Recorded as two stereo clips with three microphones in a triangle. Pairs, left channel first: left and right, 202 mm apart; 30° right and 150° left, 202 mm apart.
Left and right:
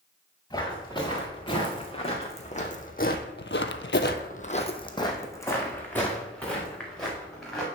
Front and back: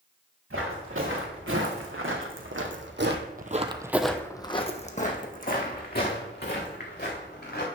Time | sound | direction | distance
0.5 | footsteps | 160° left | 2.5 m